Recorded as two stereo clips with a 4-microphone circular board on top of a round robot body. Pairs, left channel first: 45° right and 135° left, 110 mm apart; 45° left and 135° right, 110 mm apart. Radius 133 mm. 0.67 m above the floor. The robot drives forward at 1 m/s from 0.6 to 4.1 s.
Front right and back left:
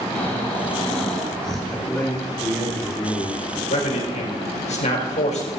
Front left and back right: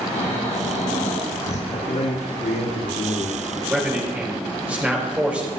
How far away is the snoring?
About 4 m.